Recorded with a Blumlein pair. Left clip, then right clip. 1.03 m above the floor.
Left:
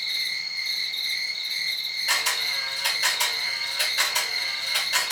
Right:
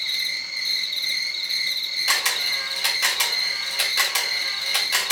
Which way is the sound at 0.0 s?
35° right.